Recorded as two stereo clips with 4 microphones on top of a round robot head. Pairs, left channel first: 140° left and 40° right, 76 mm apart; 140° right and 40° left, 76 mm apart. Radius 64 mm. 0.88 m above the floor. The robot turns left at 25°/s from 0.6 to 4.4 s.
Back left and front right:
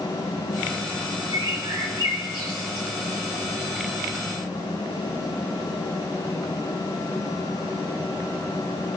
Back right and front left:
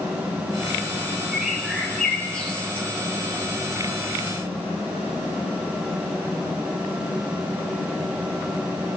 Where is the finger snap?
I don't hear a finger snap.